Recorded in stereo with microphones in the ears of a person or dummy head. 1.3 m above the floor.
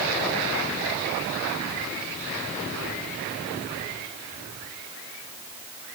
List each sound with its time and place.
Only background noise.